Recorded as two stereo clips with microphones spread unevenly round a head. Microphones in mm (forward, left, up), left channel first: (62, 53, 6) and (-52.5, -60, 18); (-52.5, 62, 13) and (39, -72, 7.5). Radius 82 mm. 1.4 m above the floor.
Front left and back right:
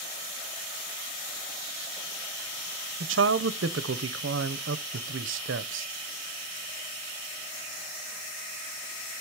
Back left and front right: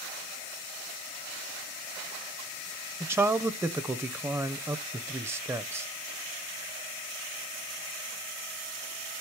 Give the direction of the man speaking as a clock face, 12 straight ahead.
4 o'clock.